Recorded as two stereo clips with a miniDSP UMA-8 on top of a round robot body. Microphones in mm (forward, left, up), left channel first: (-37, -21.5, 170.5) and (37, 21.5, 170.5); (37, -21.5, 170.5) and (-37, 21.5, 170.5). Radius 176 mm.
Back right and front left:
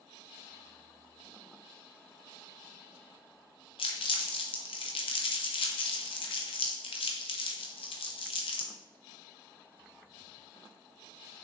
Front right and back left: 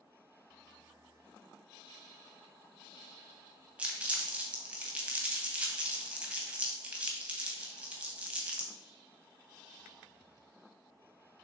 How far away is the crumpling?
About 0.6 m.